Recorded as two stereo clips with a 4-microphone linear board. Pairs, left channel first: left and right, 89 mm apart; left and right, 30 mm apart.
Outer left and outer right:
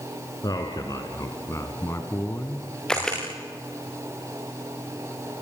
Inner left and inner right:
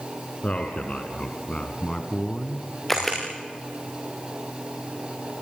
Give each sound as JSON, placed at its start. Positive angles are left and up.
{"t": 0.4, "sound": "a man speaking", "side_deg": 50, "distance_m": 3.0}
{"t": 2.9, "sound": "a camera shutter", "side_deg": 10, "distance_m": 9.0}